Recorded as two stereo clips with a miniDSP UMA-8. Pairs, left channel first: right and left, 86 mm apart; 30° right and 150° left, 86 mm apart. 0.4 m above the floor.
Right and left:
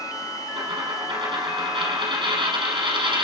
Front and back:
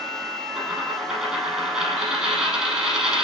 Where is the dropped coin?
70° left, 3.5 m.